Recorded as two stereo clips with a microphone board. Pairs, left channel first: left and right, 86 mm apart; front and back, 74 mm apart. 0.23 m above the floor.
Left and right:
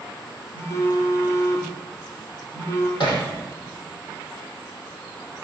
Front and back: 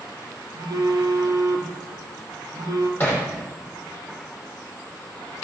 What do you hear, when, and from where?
0.5 s a phone buzzing: 145° left, 3.5 m
3.0 s hammering: 65° left, 4.5 m